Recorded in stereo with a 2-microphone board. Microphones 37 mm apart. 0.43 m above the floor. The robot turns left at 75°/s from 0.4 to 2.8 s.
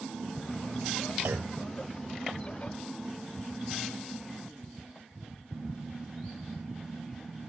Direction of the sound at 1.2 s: 75° right (ahead or behind).